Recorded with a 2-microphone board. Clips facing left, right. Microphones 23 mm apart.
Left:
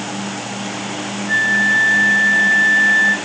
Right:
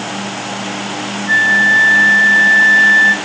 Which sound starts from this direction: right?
A flute, at 1.3 s.